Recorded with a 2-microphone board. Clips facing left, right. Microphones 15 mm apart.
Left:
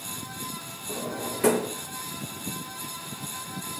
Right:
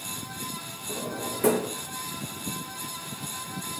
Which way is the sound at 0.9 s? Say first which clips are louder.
Left 1 dB; 20° left (ahead or behind).